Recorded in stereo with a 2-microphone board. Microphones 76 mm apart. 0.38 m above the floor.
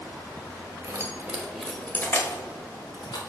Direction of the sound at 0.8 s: 35° right (ahead or behind).